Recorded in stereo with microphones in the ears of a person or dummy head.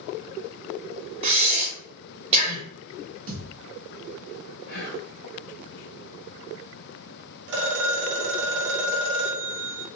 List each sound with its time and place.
1.2 s breathing: 30° right (ahead or behind), 1.0 m
3.3 s a thud: 50° right (ahead or behind), 1.7 m
4.7 s whispering: 60° left (ahead or behind), 1.5 m
7.5 s a phone ringing: 65° right (ahead or behind), 1.3 m